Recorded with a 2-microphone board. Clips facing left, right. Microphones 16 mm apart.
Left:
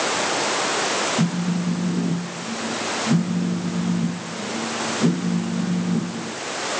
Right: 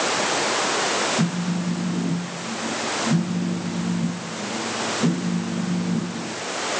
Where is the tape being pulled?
I don't hear tape being pulled.